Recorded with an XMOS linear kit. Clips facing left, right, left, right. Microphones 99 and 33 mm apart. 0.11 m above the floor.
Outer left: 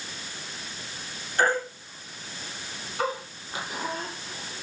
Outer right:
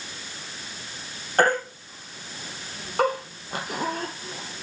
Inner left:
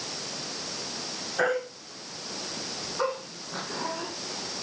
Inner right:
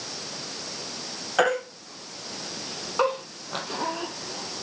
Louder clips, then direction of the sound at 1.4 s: Outer right 3 dB, inner right 4 dB; 60° right (ahead or behind).